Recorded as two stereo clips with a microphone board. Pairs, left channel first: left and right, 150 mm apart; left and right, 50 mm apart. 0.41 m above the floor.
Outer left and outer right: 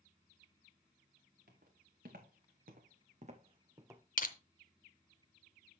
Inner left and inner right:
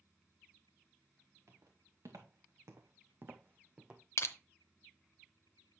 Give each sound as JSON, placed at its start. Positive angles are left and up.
{"t": 1.5, "sound": "footsteps", "side_deg": -80, "distance_m": 2.0}
{"t": 4.2, "sound": "crushing", "side_deg": 60, "distance_m": 0.7}